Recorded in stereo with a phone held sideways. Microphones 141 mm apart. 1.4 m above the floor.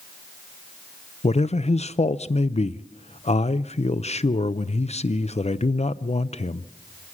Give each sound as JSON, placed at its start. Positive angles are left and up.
{"t": 1.2, "sound": "a man speaking", "side_deg": 50, "distance_m": 0.5}